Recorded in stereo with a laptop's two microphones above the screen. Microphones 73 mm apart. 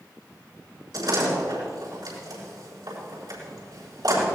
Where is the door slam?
65° right (ahead or behind), 7.5 m.